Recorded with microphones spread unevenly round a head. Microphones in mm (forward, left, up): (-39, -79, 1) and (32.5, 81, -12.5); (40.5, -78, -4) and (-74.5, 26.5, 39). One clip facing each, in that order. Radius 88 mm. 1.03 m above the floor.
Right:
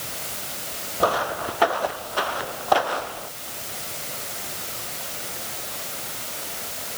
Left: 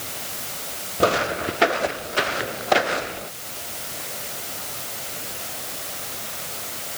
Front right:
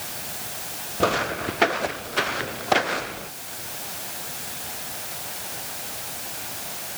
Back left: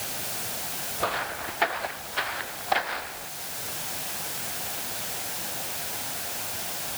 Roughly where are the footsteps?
Ahead.